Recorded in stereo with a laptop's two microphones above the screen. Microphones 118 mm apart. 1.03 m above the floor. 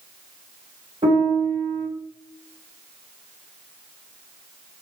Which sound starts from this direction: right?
A piano, at 1.0 s.